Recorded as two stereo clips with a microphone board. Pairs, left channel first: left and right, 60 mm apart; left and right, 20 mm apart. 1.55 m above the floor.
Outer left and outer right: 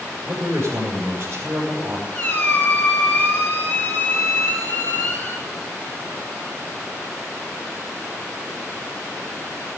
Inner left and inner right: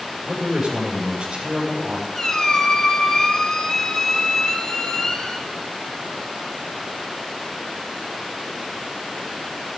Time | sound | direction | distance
0.2 | a man speaking | 35° right (ahead or behind) | 6.5 m
2.1 | a squeak | 35° left (ahead or behind) | 3.5 m